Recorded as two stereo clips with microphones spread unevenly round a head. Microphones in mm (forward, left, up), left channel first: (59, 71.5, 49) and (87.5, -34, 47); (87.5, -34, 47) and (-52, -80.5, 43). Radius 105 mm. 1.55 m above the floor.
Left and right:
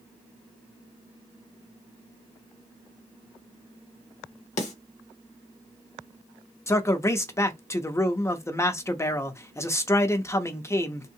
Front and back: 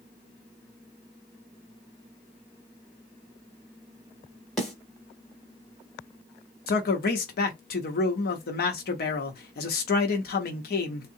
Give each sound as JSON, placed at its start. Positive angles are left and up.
{"t": 4.6, "sound": "a snare drum", "azimuth_deg": 105, "distance_m": 1.0}
{"t": 6.7, "sound": "a man speaking", "azimuth_deg": 40, "distance_m": 0.8}